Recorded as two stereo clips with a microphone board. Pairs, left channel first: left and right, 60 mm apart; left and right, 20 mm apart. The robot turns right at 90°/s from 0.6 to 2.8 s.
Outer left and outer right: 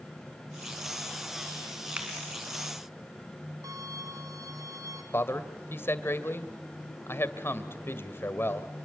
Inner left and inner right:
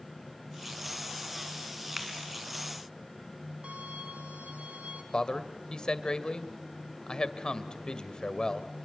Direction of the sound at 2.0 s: 20° right (ahead or behind).